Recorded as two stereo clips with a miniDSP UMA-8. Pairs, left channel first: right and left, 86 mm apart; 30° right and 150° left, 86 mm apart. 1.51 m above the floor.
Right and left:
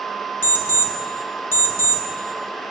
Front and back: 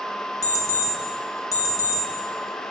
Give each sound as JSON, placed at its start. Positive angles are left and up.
{"t": 0.4, "sound": "an alarm clock", "azimuth_deg": -40, "distance_m": 1.0}